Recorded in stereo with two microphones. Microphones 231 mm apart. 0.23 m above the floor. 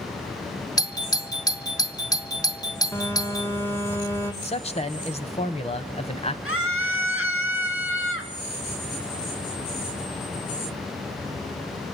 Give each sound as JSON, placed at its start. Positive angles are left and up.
{"t": 0.8, "sound": "a doorbell", "side_deg": 15, "distance_m": 1.5}
{"t": 2.9, "sound": "a phone buzzing", "side_deg": 10, "distance_m": 2.5}
{"t": 4.4, "sound": "a man speaking", "side_deg": 25, "distance_m": 1.1}
{"t": 6.5, "sound": "a scream", "side_deg": 65, "distance_m": 3.0}